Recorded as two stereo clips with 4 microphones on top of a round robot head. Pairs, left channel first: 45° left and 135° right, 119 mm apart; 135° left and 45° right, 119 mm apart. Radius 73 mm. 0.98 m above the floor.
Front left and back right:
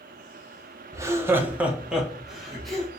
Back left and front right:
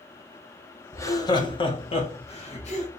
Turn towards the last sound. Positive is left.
turn(degrees=130)